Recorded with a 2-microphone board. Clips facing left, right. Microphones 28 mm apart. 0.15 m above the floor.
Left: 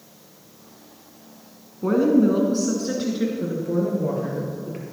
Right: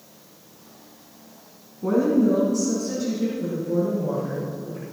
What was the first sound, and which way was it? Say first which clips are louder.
A woman speaking: left 2 dB; 25° left (ahead or behind).